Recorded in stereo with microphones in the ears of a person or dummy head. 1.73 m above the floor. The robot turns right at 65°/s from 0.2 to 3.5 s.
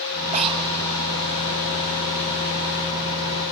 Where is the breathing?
35° right (ahead or behind), 1.5 m; by 0.7 s 15° right (ahead or behind), 1.5 m.